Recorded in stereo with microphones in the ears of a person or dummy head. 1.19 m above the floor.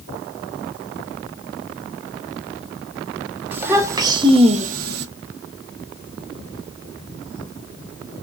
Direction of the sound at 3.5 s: 10° right (ahead or behind).